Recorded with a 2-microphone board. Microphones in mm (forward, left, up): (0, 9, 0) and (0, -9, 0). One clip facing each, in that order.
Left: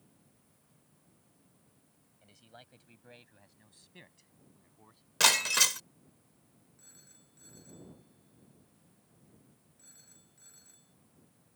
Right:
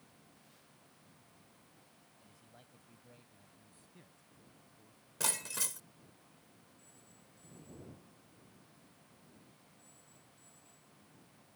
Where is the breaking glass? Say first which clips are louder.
Left 13 dB; 60° left (ahead or behind).